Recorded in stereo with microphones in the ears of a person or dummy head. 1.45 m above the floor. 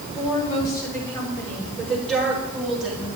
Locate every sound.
0.1 s a woman speaking: 30° left (ahead or behind), 3.5 m; by 3.1 s 5° right (ahead or behind), 4 m